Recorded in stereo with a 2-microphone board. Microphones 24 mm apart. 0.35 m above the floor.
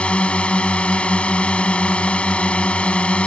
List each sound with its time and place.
0.0 s a drone: 65° left (ahead or behind)